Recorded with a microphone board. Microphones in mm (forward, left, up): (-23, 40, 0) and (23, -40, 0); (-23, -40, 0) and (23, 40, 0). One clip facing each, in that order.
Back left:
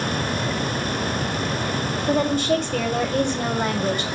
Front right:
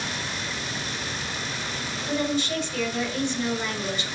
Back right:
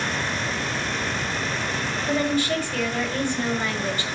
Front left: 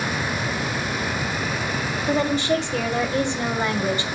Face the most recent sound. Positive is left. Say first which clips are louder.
# back left 6 dB, front left 2 dB
turn(degrees=120)